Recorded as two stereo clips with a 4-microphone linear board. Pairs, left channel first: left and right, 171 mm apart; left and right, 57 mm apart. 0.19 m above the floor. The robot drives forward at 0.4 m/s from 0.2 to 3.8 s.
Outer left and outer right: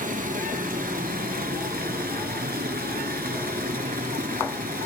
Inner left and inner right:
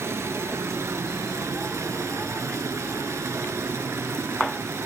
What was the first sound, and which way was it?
Running water, 55° right (ahead or behind).